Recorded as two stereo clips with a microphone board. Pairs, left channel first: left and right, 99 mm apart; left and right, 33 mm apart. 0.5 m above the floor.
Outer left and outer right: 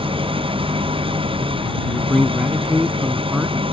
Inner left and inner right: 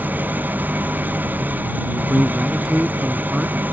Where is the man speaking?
5° right (ahead or behind).